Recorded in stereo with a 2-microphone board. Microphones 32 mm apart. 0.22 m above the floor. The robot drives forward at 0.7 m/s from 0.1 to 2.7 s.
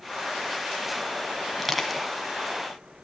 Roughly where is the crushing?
Centre.